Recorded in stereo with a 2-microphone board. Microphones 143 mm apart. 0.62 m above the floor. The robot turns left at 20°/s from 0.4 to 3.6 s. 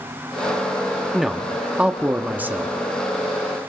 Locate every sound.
1.1 s a man speaking: centre (ahead or behind), 1.0 m; by 2.8 s 15° right (ahead or behind), 1.0 m